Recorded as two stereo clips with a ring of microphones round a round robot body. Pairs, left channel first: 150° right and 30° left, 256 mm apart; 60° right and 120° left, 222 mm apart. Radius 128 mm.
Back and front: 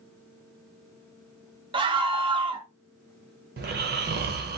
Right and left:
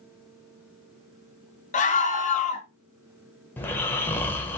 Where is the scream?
30° right, 0.7 m.